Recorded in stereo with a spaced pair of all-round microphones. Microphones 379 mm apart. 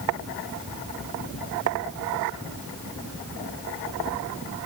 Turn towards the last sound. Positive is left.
No sound to turn to.